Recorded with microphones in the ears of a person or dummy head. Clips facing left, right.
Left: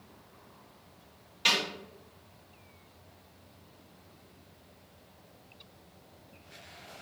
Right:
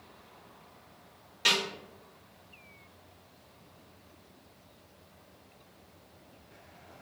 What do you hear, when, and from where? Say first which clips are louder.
1.4 s a snare drum: right 1 dB; 25° right (ahead or behind), 1.9 m